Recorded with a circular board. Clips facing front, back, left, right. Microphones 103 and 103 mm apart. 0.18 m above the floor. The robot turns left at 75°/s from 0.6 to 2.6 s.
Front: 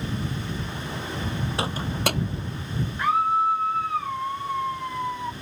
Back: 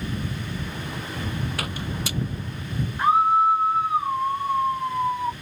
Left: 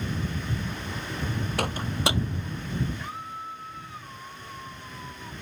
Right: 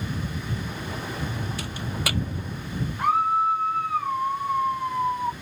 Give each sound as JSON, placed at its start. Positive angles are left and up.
{"t": 1.6, "sound": "a microwave", "azimuth_deg": 65}
{"t": 3.0, "sound": "a scream", "azimuth_deg": -115}